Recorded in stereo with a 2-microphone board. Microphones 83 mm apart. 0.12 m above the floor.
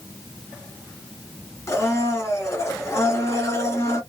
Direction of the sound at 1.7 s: 35° left (ahead or behind).